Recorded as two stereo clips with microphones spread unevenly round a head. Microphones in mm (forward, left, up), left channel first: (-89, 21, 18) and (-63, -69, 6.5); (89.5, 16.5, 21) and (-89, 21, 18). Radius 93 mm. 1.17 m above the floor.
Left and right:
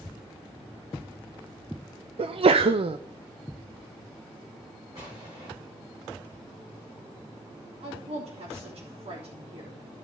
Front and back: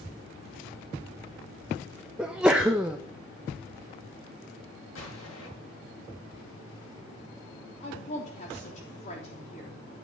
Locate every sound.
2.2 s a sneeze: 95° right, 0.6 m
5.0 s an explosion: straight ahead, 6.5 m
7.8 s a woman speaking: 55° right, 3 m